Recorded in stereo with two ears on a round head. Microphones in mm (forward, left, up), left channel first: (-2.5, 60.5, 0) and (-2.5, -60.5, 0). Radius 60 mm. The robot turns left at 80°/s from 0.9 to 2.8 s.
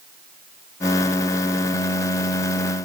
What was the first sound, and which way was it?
Only background noise.